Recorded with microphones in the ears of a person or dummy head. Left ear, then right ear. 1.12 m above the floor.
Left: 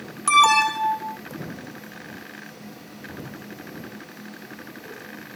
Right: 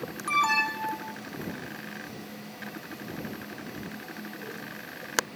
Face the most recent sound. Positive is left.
turn(degrees=40)  # may be behind; listen again after turning